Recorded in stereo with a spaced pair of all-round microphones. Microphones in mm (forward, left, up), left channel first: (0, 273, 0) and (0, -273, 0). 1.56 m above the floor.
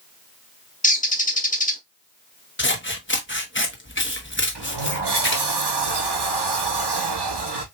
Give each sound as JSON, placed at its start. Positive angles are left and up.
{"t": 0.8, "sound": "a bird", "side_deg": 15, "distance_m": 1.0}
{"t": 2.6, "sound": "scissors", "side_deg": 20, "distance_m": 0.9}
{"t": 4.5, "sound": "a sliding door", "side_deg": -50, "distance_m": 0.8}